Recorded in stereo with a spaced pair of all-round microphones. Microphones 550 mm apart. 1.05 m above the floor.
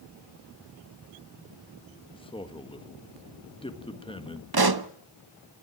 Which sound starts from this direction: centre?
A man speaking, at 2.1 s.